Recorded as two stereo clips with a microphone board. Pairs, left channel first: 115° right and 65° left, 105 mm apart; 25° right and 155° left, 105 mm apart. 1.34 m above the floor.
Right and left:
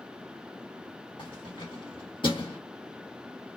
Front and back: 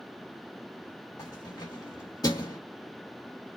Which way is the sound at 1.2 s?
75° right.